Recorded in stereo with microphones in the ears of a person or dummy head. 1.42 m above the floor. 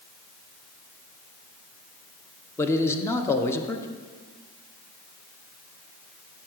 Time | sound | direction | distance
2.6 | a man speaking | 15° left (ahead or behind) | 0.7 m